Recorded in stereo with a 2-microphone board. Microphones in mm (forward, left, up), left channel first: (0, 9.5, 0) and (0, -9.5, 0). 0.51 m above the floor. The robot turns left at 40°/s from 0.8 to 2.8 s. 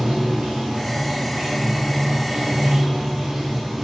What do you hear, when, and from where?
0.0 s running water: 75° right, 1.2 m; by 3.9 s 155° right, 1.2 m